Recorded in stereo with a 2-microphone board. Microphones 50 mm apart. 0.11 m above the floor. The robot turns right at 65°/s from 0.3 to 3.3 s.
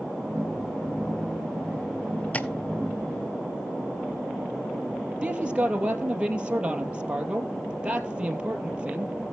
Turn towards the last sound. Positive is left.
turn(degrees=-20)  # may be behind; listen again after turning